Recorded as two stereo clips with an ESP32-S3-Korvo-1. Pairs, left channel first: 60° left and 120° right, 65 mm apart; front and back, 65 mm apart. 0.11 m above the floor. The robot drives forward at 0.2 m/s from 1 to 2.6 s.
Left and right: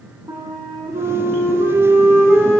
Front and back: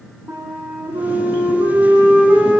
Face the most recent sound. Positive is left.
turn(degrees=-145)